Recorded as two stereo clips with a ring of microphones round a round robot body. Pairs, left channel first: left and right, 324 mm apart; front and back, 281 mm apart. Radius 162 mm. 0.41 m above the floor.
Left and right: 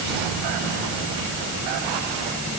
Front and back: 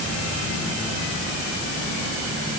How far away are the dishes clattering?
No dishes clattering in this recording.